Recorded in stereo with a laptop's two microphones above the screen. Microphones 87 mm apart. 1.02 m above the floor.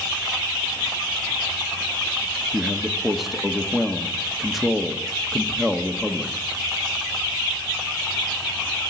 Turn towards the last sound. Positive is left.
turn(degrees=0)  # may be behind; listen again after turning